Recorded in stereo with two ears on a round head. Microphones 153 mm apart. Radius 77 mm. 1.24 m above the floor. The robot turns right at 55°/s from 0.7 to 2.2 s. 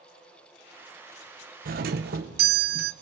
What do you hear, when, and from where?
1.6 s a doorbell: 110° right, 1.2 m; by 2.9 s 80° right, 1.2 m